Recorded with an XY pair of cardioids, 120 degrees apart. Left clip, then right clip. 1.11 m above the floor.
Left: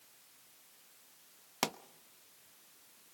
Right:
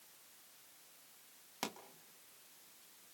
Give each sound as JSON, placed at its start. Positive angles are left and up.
{"t": 1.6, "sound": "a pop", "azimuth_deg": 50, "distance_m": 0.9}